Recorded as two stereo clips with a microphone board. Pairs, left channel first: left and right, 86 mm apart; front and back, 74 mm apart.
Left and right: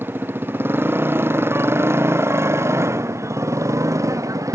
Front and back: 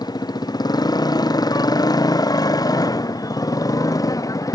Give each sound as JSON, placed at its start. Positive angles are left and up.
{"t": 0.0, "sound": "a motorcycle", "azimuth_deg": -25}